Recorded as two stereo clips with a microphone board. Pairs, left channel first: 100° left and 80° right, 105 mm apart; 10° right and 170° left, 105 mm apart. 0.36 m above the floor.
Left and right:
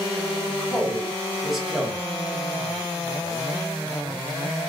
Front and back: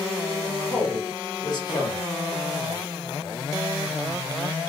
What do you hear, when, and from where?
0.5 s a woman speaking: 10° left, 1.1 m